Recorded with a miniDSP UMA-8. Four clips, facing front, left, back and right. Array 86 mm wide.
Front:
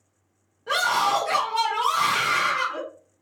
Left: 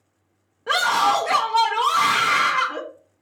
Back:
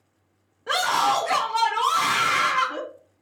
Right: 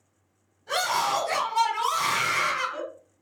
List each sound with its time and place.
0.7 s a scream: 100° left, 1.6 m